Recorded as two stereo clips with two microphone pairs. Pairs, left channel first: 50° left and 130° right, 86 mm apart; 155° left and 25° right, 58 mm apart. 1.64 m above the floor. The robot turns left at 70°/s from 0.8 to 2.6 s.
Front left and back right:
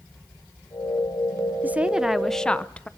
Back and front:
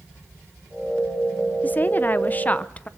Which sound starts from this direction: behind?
A woman speaking, at 1.6 s.